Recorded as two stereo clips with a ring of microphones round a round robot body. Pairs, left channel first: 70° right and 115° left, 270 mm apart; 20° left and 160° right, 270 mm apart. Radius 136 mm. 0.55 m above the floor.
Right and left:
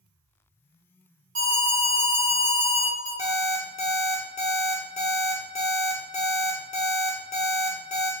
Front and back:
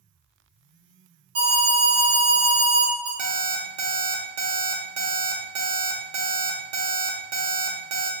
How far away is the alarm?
About 2.0 m.